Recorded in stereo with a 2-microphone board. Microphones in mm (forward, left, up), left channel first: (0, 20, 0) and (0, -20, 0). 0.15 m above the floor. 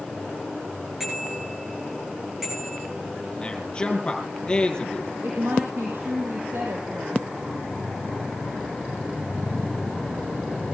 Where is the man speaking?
25° left (ahead or behind), 4.5 m.